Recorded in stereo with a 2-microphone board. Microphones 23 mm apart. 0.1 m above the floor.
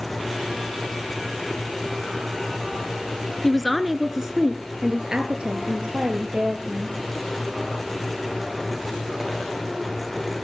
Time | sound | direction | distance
3.4 | a woman speaking | 10° left (ahead or behind) | 1.2 m